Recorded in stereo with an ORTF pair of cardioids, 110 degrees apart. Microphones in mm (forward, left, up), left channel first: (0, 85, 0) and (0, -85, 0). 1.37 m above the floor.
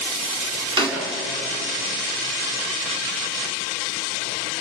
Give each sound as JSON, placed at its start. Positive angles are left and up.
{"t": 0.8, "sound": "a snare drum", "azimuth_deg": -30, "distance_m": 5.0}